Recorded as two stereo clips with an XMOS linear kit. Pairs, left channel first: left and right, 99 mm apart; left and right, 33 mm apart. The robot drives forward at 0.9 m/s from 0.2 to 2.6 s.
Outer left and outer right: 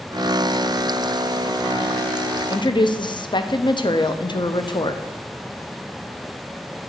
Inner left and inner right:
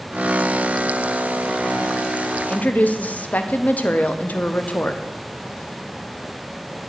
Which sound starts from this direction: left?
A woman speaking, at 2.5 s.